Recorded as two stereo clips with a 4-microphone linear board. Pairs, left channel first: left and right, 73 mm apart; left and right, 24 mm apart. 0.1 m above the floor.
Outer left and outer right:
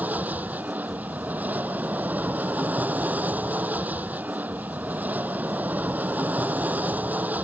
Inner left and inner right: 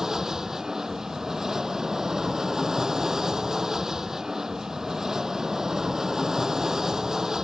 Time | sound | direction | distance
0.0 | an aircraft | 20° right (ahead or behind) | ?